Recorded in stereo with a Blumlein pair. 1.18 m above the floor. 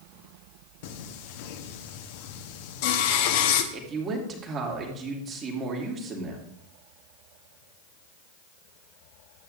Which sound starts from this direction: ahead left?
Singing, at 0.8 s.